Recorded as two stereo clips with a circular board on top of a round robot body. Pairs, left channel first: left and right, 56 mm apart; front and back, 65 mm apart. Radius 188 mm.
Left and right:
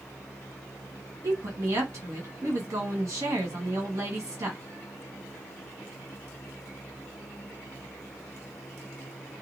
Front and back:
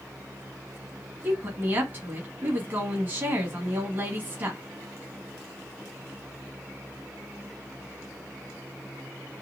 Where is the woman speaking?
125° right, 1.7 m.